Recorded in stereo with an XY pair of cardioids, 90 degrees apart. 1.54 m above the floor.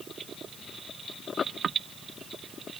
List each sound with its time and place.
Only background noise.